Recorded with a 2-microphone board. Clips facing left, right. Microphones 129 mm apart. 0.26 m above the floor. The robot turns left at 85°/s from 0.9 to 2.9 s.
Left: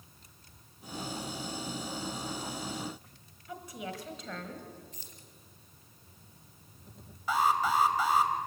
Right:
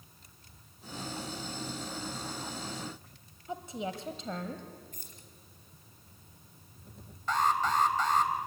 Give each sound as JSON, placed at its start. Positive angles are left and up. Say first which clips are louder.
{"t": 3.5, "sound": "a woman speaking", "louder": "right 4 dB", "side_deg": -25, "distance_m": 1.3}
{"t": 4.9, "sound": "keys jangling", "louder": "even", "side_deg": -50, "distance_m": 3.0}
{"t": 7.3, "sound": "an alarm", "louder": "left 1 dB", "side_deg": 10, "distance_m": 1.5}